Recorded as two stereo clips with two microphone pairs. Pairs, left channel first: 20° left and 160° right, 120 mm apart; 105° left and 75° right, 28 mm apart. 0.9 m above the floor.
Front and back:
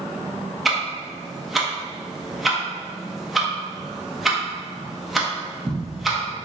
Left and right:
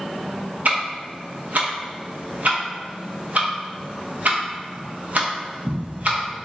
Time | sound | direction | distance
0.7 | ticking | 70° right | 0.8 m